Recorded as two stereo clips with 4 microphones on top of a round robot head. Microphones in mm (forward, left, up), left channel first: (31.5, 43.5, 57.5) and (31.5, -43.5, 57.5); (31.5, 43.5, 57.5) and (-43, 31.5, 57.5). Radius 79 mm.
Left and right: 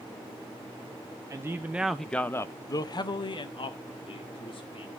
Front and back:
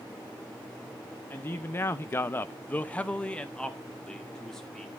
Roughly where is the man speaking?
Ahead right.